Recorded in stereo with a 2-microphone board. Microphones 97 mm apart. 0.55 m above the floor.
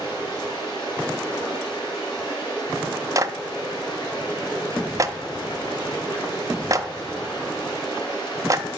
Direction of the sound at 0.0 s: 50° left (ahead or behind).